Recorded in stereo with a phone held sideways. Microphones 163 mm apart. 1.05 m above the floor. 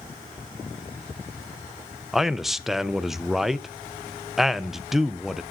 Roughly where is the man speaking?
Centre.